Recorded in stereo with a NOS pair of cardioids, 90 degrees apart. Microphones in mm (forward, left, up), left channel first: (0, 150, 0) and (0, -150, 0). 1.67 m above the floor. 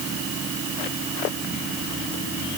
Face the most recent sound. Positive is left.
No sound to turn to.